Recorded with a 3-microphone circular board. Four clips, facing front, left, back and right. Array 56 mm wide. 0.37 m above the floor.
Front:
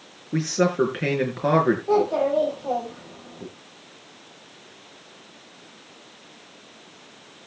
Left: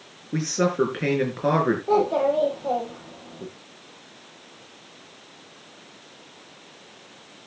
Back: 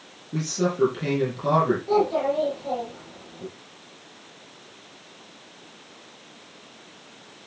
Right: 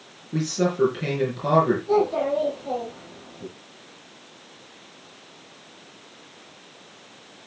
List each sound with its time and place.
0.3 s a man speaking: 35° left, 6 m
1.9 s a child speaking: 65° left, 8 m